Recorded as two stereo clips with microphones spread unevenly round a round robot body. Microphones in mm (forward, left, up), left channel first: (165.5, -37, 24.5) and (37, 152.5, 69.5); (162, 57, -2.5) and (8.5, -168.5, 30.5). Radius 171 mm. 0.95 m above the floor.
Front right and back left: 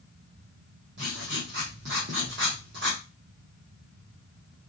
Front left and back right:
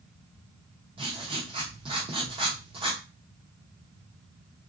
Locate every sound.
1.0 s writing: 165° left, 0.7 m